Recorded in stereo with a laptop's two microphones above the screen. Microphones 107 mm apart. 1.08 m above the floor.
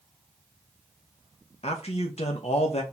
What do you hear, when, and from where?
1.6 s a man speaking: 75° left (ahead or behind), 0.8 m